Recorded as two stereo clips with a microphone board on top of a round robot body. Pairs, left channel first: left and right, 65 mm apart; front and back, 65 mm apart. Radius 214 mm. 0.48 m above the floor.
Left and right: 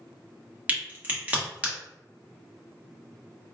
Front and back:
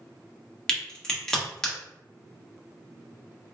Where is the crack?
65° right, 1.4 m.